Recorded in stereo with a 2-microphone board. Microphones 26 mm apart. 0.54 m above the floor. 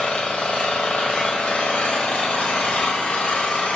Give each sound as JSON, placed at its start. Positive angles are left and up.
{"t": 0.0, "sound": "an engine running", "side_deg": 70, "distance_m": 1.6}